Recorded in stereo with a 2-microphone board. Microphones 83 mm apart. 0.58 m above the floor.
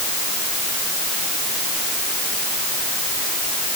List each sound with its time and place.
Only background noise.